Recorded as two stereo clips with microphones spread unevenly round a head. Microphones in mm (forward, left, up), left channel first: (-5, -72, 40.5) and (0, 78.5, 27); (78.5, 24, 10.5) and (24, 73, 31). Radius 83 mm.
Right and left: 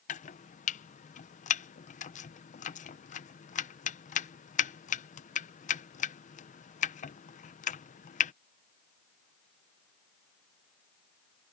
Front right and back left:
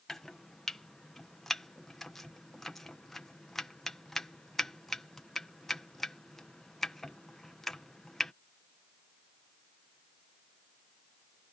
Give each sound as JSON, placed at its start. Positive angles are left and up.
{"t": 0.1, "sound": "chopping", "azimuth_deg": -115}